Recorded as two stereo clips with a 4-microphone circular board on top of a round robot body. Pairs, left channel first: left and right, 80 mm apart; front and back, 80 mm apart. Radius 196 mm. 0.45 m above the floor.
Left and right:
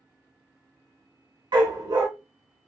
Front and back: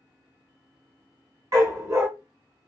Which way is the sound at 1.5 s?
125° right.